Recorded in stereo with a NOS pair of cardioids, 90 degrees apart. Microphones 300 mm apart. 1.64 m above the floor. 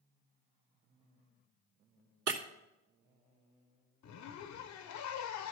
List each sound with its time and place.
2.3 s breaking glass: 55° right, 2.5 m
4.0 s a zipper: 70° left, 1.0 m